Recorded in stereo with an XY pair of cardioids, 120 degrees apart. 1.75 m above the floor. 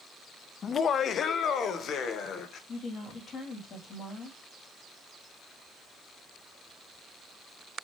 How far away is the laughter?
About 0.6 m.